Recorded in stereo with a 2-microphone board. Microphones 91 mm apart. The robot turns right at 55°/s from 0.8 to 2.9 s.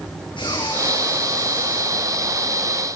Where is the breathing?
60° left, 9 m; by 2.3 s 140° left, 9 m.